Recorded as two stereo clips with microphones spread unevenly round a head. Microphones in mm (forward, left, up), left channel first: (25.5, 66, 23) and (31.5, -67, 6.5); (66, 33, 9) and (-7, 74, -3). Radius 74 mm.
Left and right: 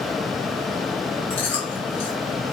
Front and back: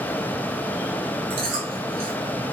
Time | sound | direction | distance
1.3 | chewing | 165° left | 4.5 m